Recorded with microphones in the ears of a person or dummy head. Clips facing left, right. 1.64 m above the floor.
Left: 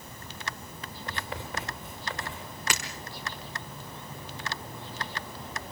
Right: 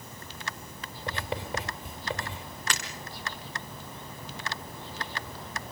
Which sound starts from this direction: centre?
Breaking glass, at 2.7 s.